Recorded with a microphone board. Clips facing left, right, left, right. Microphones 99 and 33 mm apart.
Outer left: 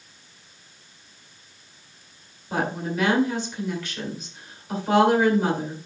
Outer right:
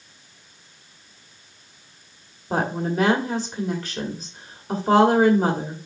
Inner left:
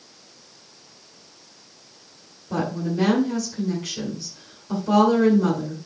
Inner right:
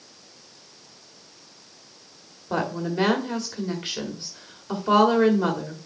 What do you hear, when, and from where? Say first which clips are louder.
2.5 s a woman speaking: outer right 3 dB, inner left 1 dB; 40° right (ahead or behind), 1.8 m